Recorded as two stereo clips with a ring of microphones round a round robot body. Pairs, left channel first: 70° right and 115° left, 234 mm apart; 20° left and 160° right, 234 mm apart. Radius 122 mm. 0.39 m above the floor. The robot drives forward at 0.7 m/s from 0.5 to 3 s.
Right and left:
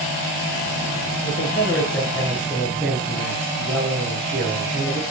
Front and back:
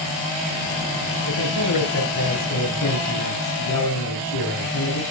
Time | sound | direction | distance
1.2 | a man speaking | 15° left | 7 m